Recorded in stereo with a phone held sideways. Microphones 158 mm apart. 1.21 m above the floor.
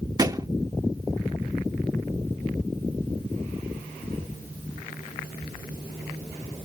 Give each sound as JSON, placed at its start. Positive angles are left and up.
{"t": 0.2, "sound": "a thud", "side_deg": -25}